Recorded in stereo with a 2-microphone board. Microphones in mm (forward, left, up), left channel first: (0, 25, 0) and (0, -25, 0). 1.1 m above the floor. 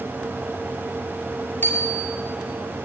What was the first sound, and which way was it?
A bicycle bell, 45° left (ahead or behind).